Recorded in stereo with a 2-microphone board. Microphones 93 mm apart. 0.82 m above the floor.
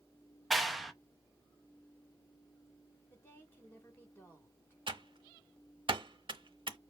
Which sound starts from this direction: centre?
A clap, at 0.5 s.